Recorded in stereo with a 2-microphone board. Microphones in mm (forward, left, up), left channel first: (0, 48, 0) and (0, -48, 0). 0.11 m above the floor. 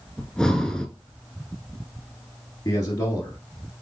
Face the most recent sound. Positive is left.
turn(degrees=40)  # may be behind; listen again after turning